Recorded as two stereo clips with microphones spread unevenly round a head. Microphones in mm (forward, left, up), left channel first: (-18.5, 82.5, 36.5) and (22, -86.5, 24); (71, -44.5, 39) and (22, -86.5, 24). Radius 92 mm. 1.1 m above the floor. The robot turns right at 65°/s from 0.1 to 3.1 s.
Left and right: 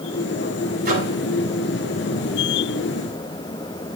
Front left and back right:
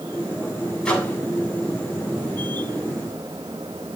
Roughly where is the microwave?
Ahead right.